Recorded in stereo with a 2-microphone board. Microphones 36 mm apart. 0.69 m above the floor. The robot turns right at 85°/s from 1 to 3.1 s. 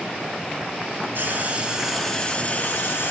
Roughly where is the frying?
Right.